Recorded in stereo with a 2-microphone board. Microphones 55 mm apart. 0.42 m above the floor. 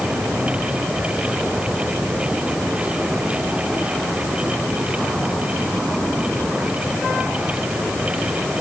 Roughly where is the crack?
I don't hear a crack.